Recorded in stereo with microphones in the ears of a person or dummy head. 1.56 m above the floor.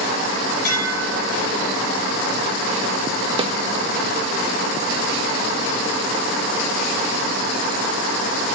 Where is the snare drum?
20° right (ahead or behind), 1.3 m.